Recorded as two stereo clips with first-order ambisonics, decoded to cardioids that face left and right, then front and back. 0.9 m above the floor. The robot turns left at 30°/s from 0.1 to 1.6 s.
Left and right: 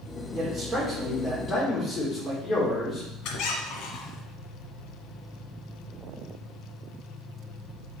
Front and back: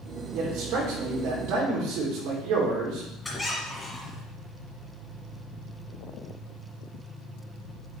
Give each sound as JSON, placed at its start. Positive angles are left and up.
{"t": 0.3, "sound": "a man speaking", "azimuth_deg": -165, "distance_m": 2.5}
{"t": 3.2, "sound": "a squeak", "azimuth_deg": 80, "distance_m": 1.2}